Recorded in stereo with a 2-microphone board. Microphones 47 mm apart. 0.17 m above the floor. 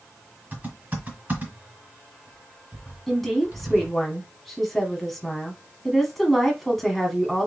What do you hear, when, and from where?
0.5 s typing on a keyboard: 35° right (ahead or behind), 2.5 m
3.1 s a woman speaking: 5° left (ahead or behind), 1.4 m